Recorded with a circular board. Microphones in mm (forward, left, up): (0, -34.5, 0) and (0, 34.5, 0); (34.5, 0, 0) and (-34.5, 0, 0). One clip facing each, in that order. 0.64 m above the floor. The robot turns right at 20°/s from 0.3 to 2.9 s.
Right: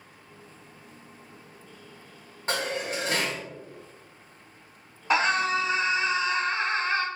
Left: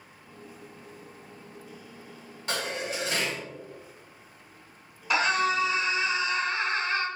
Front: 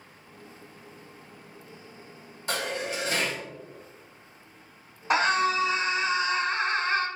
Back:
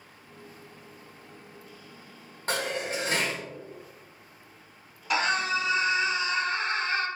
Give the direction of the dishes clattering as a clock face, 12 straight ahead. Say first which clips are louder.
Right 2 dB, back 1 dB; 5 o'clock.